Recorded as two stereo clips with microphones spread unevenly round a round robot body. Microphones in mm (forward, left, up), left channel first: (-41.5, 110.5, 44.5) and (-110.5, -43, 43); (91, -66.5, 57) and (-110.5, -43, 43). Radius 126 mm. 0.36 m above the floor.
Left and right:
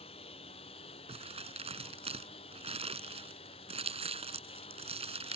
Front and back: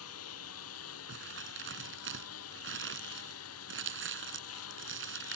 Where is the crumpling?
165° right.